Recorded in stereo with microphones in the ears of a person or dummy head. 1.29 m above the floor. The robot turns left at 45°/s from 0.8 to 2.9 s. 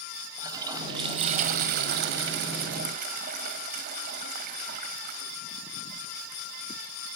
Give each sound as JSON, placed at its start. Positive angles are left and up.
{"t": 0.4, "sound": "a toilet flushing", "azimuth_deg": -25, "distance_m": 1.9}